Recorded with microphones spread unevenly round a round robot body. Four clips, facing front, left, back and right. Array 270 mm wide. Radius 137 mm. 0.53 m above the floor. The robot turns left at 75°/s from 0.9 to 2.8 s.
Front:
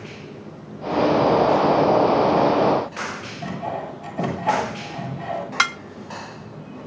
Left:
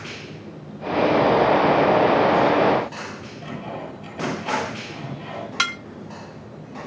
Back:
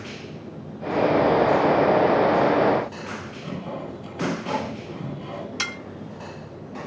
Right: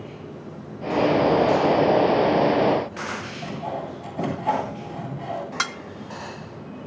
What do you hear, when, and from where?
3.4 s sawing: 10° right, 9 m
5.6 s dishes clattering: 10° right, 0.9 m